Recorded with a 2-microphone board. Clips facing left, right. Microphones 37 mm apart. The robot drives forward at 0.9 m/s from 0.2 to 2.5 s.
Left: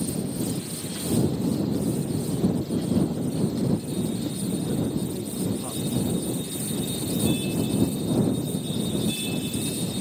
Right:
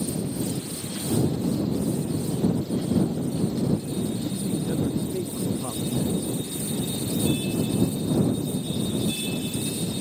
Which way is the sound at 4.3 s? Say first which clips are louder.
Right 1 dB; 50° right (ahead or behind).